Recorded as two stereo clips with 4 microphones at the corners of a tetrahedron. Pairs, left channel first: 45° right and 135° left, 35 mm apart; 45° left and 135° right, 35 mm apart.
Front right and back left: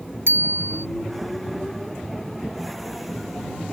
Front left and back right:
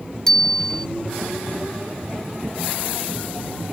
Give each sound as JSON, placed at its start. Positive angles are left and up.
{"t": 0.3, "sound": "a bicycle bell", "azimuth_deg": 120}